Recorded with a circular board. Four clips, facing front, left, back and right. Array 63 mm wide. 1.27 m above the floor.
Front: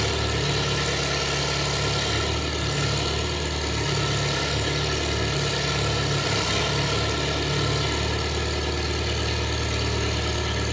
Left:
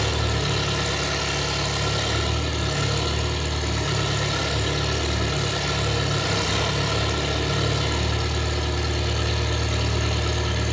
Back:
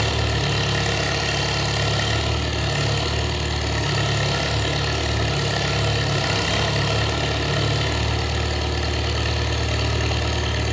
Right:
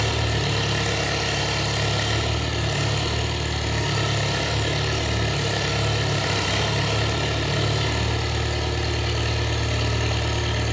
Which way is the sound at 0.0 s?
160° right.